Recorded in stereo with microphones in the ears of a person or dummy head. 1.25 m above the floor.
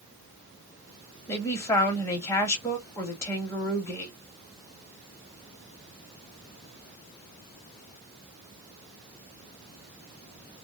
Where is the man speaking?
15° left (ahead or behind), 0.9 m.